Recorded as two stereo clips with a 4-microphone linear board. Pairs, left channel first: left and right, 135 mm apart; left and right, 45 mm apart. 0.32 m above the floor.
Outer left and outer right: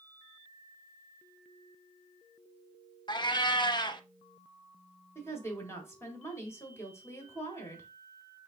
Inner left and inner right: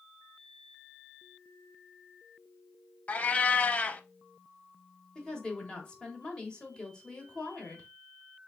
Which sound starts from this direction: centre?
A woman speaking, at 5.2 s.